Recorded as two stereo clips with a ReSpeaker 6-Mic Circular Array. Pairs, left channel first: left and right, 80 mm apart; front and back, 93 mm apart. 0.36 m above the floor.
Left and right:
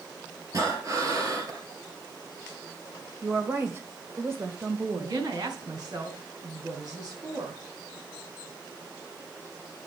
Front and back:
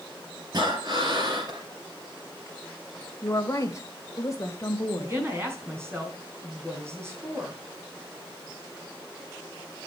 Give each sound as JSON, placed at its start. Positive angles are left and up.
{"t": 0.5, "sound": "breathing", "azimuth_deg": -135, "distance_m": 3.0}
{"t": 3.2, "sound": "a woman speaking", "azimuth_deg": -45, "distance_m": 1.9}
{"t": 5.0, "sound": "a woman speaking", "azimuth_deg": -120, "distance_m": 3.5}